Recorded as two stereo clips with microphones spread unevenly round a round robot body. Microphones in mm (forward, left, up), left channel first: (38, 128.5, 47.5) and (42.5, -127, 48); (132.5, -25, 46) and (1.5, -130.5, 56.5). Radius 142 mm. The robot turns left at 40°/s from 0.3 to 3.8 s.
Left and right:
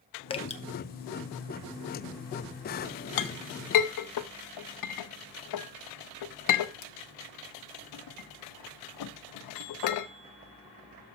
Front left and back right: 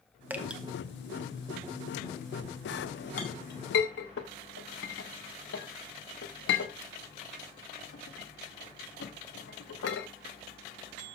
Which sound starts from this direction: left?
A clink, at 3.2 s.